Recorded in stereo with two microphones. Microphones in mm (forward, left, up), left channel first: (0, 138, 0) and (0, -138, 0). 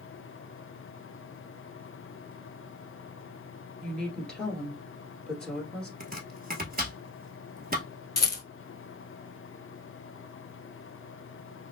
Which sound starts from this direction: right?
Chopping, at 6.0 s.